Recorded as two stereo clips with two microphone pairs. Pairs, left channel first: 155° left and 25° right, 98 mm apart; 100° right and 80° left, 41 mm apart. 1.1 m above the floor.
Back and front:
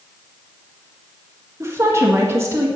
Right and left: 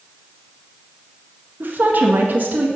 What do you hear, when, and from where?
1.6 s a woman speaking: 40° left, 1.7 m